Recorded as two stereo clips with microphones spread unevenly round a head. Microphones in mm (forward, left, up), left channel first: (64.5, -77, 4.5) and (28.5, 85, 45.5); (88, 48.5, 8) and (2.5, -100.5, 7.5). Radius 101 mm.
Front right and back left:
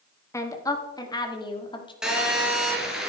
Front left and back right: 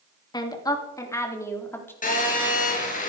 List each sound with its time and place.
0.3 s a woman speaking: 5° right, 3 m; by 1.9 s 15° right, 4 m
2.0 s a phone buzzing: 20° left, 5.5 m